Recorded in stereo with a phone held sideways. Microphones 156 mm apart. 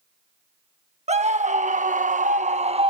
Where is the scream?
45° right (ahead or behind); by 2.9 s 35° right (ahead or behind).